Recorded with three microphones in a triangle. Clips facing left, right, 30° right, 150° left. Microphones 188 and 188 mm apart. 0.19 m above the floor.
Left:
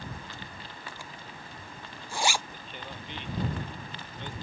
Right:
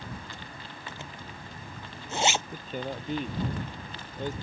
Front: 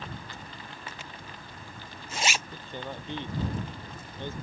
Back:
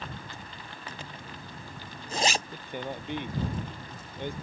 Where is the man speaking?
135° right.